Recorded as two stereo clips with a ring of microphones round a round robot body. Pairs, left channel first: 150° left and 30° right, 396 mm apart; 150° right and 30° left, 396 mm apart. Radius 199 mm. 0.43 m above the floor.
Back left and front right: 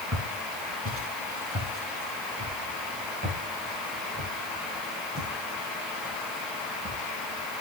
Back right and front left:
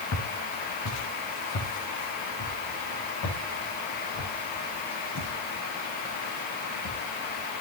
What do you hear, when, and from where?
0.1 s footsteps: 90° right, 4.5 m